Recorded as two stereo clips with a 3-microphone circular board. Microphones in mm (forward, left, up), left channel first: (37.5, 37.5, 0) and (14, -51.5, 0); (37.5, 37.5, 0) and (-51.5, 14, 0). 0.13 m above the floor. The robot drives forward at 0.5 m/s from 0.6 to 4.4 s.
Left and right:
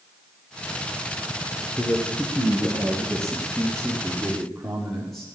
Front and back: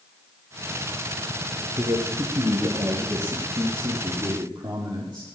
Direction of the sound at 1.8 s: 150° left.